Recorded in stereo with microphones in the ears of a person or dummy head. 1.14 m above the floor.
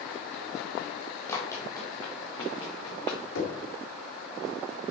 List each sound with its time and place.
1.3 s running footsteps: 20° left (ahead or behind), 1.8 m; by 3.2 s 35° left (ahead or behind), 4.5 m
3.4 s knocking: 80° left, 2.5 m